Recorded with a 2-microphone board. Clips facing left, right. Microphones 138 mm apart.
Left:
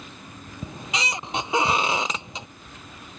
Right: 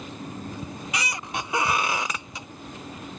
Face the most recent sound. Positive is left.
turn(degrees=25)  # may be behind; listen again after turning